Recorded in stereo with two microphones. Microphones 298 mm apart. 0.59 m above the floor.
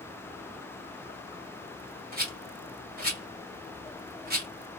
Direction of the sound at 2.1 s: 30° right (ahead or behind).